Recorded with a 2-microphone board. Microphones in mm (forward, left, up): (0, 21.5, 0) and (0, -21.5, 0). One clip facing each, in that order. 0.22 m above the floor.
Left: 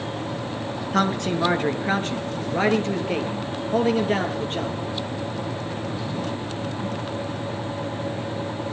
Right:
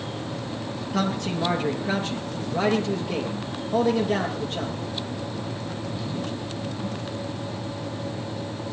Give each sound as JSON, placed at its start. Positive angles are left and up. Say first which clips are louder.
{"t": 0.9, "sound": "a man speaking", "louder": "left 4 dB", "side_deg": 55, "distance_m": 2.5}